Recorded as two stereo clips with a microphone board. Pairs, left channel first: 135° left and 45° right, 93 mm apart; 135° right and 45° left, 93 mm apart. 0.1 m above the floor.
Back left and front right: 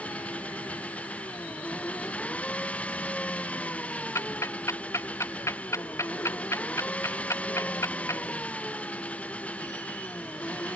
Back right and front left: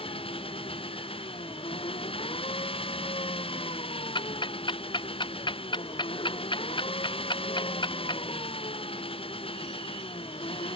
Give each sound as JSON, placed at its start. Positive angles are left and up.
{"t": 0.0, "sound": "an engine running", "azimuth_deg": -150}
{"t": 4.2, "sound": "ticking", "azimuth_deg": -165}